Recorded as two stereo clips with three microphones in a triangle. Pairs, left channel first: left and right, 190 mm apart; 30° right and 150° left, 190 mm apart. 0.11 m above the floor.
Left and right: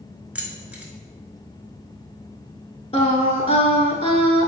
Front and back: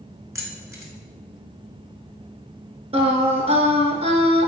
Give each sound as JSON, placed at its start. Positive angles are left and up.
{"t": 0.3, "sound": "keys jangling", "azimuth_deg": -160, "distance_m": 0.8}
{"t": 2.9, "sound": "singing", "azimuth_deg": 120, "distance_m": 0.6}